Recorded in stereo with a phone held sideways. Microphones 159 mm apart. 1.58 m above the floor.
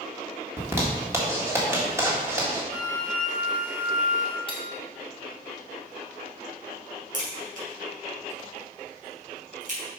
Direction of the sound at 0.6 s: 15° right (ahead or behind).